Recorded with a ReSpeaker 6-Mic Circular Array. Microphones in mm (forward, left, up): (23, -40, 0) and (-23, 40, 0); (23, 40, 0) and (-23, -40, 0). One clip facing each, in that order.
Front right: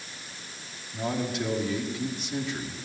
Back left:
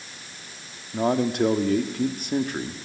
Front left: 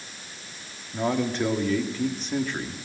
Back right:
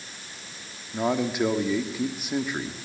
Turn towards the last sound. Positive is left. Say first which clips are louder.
# back left 8 dB, even
turn(degrees=160)